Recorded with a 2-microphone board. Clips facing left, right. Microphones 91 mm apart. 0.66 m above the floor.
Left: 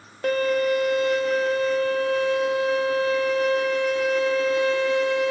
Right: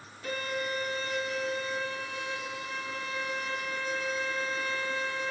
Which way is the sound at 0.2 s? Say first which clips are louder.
Left 13 dB; 80° left.